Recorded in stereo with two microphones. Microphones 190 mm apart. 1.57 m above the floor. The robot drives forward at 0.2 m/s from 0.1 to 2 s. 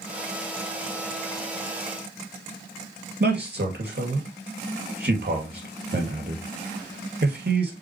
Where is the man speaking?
55° right (ahead or behind), 2 m.